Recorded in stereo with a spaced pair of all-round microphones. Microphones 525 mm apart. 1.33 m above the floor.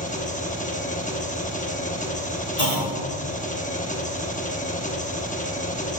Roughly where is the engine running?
Centre.